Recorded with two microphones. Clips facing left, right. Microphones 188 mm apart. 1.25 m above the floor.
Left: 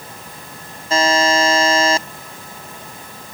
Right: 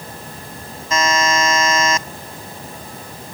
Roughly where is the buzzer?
Left.